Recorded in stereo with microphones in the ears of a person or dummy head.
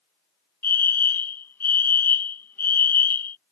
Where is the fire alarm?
10° left (ahead or behind).